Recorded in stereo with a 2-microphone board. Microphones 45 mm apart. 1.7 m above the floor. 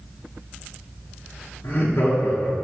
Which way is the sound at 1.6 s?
70° left (ahead or behind).